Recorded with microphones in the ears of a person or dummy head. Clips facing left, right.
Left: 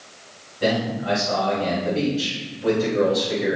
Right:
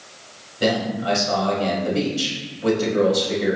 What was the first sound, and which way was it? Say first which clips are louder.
A man speaking: right 1 dB; 65° right (ahead or behind).